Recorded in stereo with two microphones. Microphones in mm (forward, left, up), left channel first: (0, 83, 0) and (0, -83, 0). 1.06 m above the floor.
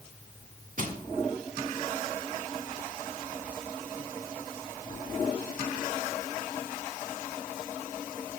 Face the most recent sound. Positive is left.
turn(degrees=-60)  # may be behind; listen again after turning